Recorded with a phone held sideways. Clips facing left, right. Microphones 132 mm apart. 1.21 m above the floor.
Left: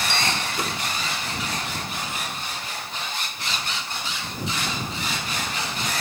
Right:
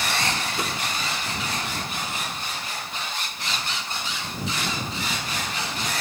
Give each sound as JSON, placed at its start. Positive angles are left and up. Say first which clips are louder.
{"t": 0.1, "sound": "a bell", "louder": "even", "side_deg": -5}